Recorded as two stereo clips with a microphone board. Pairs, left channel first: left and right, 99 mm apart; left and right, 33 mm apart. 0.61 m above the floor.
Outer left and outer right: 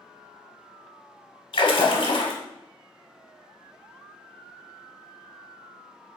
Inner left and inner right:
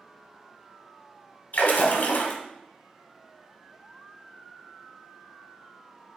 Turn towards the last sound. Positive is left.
turn(degrees=60)  # may be behind; listen again after turning